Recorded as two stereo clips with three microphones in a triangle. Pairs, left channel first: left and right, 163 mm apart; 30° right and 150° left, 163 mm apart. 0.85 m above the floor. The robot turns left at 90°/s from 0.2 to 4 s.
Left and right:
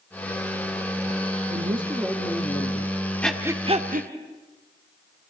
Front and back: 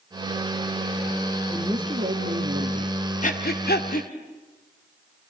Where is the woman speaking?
120° right, 1.6 m; by 3.0 s 105° left, 1.6 m.